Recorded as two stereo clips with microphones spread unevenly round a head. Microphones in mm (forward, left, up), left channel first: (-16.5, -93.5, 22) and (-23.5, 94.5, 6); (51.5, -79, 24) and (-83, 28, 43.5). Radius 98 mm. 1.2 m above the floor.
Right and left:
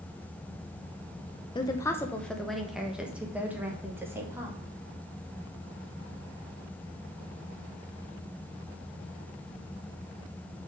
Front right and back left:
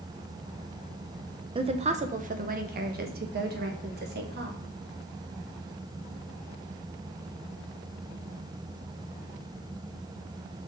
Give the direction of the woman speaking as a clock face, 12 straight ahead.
5 o'clock.